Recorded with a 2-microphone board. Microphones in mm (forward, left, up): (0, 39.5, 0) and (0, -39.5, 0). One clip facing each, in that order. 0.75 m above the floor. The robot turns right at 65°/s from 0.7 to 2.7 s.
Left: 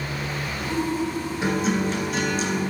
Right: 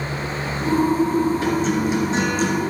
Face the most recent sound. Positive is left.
turn(degrees=-115)